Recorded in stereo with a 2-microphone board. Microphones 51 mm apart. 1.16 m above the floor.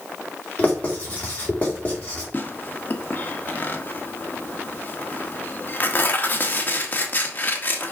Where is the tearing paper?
35° left (ahead or behind), 1.4 m.